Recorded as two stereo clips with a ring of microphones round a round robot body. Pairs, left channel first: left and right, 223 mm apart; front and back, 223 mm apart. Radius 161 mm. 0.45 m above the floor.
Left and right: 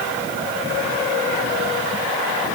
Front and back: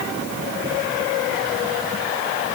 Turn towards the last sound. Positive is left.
No sound to turn to.